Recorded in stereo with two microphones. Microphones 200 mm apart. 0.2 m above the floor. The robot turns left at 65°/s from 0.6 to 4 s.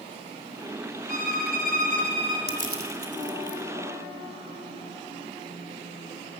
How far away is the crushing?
About 1.6 m.